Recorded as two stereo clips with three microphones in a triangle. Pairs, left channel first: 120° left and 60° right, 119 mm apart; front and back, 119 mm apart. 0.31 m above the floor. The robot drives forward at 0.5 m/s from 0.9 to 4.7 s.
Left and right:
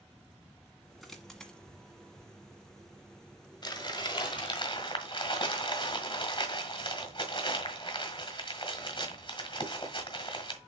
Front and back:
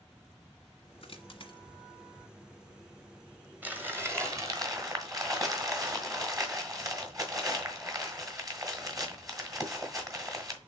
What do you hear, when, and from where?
1.0 s a dropped coin: 30° left, 1.3 m; by 1.6 s 40° left, 1.1 m
3.6 s crumpling: 115° left, 1.3 m; by 10.6 s 140° left, 1.6 m